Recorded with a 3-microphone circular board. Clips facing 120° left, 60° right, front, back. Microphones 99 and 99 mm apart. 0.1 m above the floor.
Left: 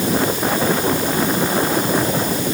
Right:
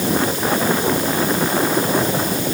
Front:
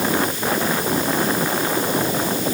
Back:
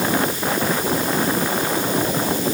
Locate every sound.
Only background noise.